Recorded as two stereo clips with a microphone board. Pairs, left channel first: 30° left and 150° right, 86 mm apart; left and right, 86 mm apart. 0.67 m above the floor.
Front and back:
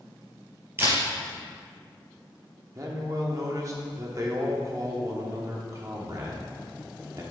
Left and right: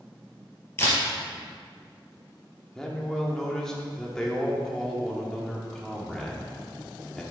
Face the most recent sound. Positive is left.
turn(degrees=170)